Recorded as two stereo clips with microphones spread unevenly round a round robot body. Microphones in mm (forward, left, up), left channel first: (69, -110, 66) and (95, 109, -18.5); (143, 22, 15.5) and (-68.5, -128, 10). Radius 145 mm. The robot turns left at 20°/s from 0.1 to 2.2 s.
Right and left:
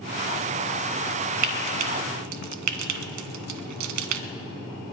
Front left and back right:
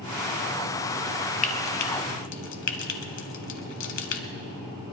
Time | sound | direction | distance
1.4 | frying | 100° left | 0.9 m